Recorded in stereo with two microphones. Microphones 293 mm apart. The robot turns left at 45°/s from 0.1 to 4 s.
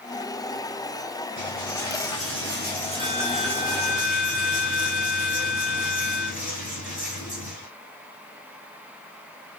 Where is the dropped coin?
90° right, 4 m; by 7.7 s 155° left, 4 m.